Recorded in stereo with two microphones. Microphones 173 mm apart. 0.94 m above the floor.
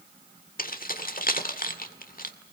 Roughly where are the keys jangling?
Left.